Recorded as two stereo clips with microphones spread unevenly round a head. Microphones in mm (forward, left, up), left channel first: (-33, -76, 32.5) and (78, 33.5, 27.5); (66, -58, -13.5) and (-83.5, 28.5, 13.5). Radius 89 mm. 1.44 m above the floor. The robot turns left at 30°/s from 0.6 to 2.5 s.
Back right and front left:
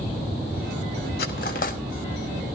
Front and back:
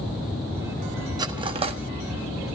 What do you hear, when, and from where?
1.2 s cutlery clinking: 155° right, 1.2 m; by 1.8 s 170° right, 1.2 m